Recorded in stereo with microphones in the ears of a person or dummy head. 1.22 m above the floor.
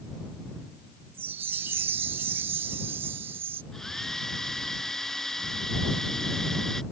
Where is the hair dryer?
5° left (ahead or behind).